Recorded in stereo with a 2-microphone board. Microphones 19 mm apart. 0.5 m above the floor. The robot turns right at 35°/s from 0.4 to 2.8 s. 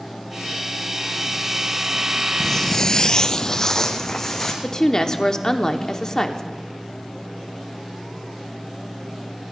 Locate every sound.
2.4 s footsteps: 20° left (ahead or behind), 0.9 m; by 4.5 s 25° left (ahead or behind), 2.5 m
4.6 s a woman speaking: 30° left (ahead or behind), 0.9 m